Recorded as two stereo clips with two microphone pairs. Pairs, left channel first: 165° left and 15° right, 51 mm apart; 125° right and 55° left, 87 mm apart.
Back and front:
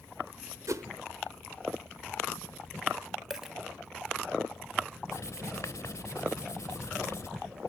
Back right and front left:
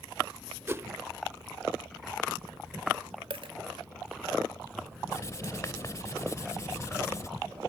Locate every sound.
0.7 s a whoosh: 5° right, 0.7 m
3.3 s a dropped coin: 65° left, 0.9 m
5.1 s writing: straight behind, 0.9 m